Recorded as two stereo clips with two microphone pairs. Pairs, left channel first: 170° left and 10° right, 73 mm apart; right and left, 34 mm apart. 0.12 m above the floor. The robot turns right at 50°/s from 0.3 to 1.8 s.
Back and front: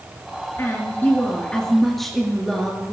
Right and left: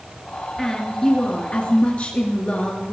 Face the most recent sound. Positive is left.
turn(degrees=-105)